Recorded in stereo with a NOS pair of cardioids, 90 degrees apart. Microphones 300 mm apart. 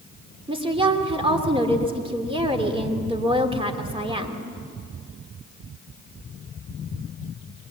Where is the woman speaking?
20° right, 2.5 m.